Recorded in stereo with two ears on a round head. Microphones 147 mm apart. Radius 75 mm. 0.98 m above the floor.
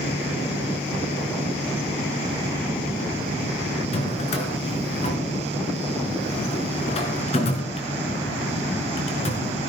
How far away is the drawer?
About 3.5 m.